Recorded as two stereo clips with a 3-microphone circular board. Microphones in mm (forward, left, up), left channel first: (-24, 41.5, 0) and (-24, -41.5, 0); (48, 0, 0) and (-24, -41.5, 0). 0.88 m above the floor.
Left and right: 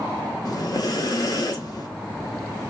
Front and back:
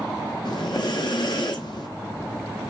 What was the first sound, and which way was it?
Breathing, 55° left.